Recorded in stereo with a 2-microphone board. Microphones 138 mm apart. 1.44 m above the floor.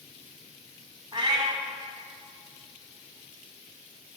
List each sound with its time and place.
1.1 s a cat meowing: 35° right (ahead or behind), 0.8 m